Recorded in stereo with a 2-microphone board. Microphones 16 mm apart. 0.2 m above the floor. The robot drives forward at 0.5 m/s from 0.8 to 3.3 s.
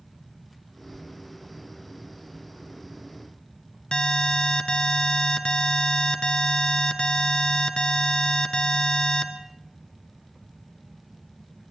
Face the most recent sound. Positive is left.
turn(degrees=65)  # may be behind; listen again after turning